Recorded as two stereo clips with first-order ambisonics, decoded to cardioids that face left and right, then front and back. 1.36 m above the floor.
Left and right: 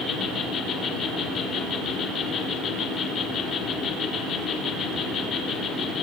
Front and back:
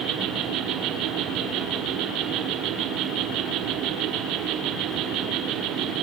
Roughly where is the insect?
Behind left.